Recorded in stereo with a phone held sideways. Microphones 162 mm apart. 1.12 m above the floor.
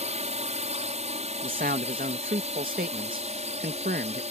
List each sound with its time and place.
0.0 s a drone: 45° right (ahead or behind)
1.4 s a man speaking: 70° right (ahead or behind)